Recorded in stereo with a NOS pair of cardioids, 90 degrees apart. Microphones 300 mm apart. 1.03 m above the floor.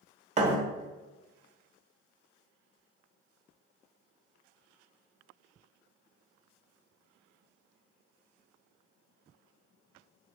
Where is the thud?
25° right, 0.9 m.